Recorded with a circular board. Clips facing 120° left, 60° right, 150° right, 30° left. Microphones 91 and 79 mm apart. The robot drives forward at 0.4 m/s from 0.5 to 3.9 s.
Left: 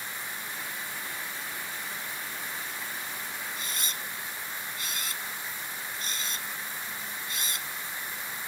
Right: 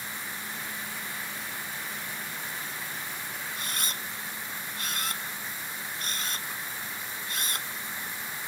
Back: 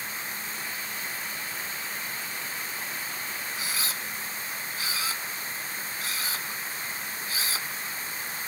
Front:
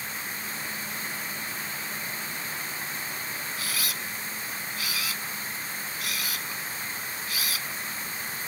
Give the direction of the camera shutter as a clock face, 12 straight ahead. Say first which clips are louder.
Right 1 dB, even; 3 o'clock.